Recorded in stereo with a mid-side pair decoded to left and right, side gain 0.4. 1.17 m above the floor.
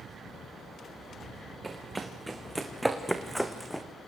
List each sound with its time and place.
1.6 s running footsteps: 20° right, 4.5 m; by 3.8 s 10° left, 3.5 m